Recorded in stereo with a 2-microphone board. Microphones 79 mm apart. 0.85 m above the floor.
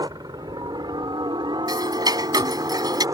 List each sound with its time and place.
0.0 s a helicopter: 55° right (ahead or behind); by 3.1 s 40° right (ahead or behind)
1.7 s ticking: 55° right (ahead or behind)